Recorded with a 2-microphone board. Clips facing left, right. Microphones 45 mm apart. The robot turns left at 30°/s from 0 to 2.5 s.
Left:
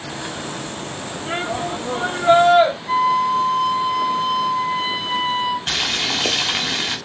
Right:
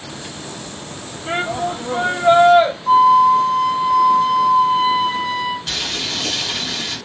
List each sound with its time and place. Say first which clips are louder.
1.3 s a shout: right 3 dB; 115° right, 0.8 m; by 2.7 s 155° right, 0.8 m
2.9 s a flute: right 7 dB; 55° right (ahead or behind), 1.4 m
5.7 s boiling: left 3 dB; 45° left (ahead or behind), 0.6 m